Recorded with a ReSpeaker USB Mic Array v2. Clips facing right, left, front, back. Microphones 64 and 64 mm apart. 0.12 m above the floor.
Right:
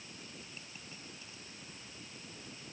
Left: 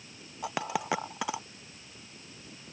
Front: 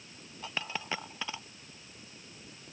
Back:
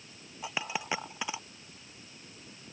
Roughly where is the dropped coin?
Left.